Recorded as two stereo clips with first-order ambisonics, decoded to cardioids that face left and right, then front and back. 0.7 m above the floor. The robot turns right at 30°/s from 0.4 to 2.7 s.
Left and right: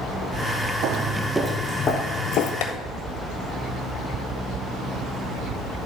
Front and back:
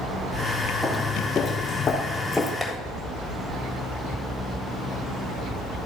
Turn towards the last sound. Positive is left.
turn(degrees=95)